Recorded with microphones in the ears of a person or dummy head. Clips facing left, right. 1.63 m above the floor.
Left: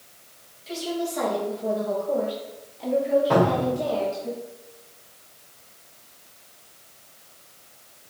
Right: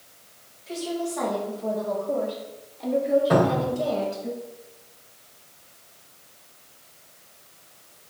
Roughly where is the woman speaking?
Left.